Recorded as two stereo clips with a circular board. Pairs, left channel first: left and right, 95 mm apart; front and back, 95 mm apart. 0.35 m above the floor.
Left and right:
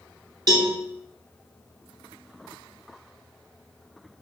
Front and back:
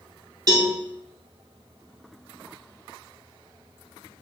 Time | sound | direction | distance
0.5 | a cowbell | 135° right | 0.6 m